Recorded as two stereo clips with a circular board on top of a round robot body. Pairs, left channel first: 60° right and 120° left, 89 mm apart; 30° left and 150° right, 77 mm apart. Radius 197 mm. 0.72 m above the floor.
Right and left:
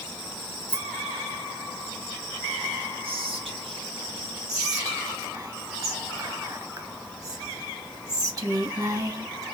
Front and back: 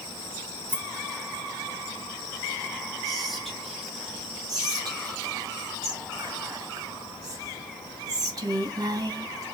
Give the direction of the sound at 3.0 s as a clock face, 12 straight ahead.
8 o'clock.